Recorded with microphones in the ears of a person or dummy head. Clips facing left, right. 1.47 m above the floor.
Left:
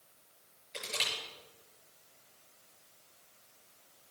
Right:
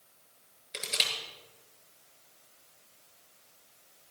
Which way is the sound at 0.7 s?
70° right (ahead or behind).